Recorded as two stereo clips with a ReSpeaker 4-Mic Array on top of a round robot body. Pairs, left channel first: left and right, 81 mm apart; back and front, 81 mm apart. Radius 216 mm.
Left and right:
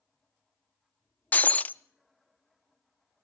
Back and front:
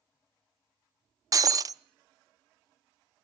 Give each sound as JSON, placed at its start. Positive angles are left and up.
{"t": 1.3, "sound": "breaking glass", "azimuth_deg": 25, "distance_m": 0.7}